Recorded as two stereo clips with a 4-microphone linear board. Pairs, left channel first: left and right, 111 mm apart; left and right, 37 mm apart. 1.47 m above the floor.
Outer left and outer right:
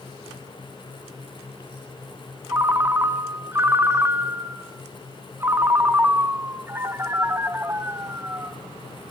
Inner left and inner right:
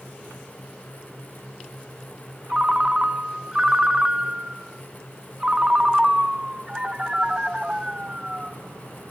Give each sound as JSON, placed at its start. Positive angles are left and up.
{"t": 2.5, "sound": "a ringtone", "side_deg": -20, "distance_m": 0.8}